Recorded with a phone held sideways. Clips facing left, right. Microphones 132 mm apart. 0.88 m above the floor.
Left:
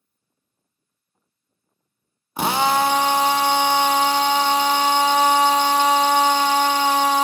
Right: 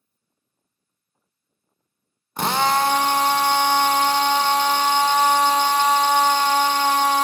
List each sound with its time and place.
2.4 s a drill: 5° left (ahead or behind), 0.9 m